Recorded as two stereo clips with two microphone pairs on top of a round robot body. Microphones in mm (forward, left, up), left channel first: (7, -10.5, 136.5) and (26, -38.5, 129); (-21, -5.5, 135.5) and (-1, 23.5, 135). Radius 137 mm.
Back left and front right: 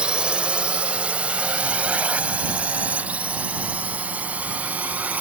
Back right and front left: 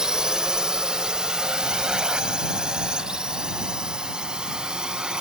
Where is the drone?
10° right; by 5.2 s 15° right.